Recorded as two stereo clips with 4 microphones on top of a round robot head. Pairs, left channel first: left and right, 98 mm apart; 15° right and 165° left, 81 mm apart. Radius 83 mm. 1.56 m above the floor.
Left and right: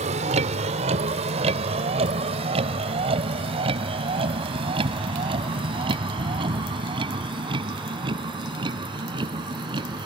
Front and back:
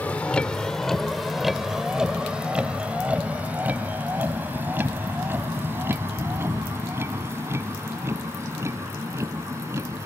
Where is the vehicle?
90° right; by 10.1 s 130° right.